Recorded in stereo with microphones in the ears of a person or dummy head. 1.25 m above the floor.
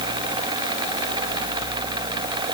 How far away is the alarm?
I don't hear an alarm.